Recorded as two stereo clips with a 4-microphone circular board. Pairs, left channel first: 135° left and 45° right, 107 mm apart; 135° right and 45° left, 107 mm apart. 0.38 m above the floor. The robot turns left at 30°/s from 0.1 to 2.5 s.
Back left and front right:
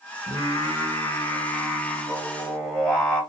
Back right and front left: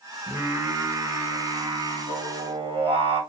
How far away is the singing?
About 1.4 m.